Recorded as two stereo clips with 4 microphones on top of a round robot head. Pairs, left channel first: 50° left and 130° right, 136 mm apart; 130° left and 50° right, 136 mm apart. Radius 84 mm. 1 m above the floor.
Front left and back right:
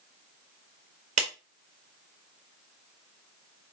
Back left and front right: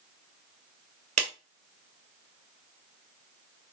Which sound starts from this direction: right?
A clap, at 1.2 s.